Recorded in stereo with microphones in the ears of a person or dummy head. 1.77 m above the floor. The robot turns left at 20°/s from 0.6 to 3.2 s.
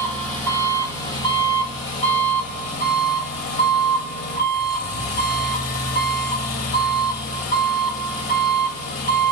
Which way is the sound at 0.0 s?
170° left.